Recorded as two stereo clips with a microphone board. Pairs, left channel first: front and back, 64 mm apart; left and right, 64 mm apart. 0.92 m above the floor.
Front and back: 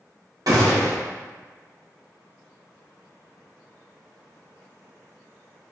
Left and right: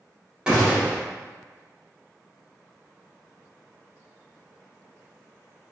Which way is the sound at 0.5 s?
165° right.